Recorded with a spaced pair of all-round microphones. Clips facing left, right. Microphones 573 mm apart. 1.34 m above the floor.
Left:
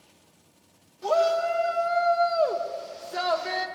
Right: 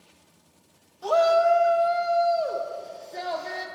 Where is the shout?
45° left (ahead or behind), 1.7 m; by 3.7 s 80° left, 2.0 m.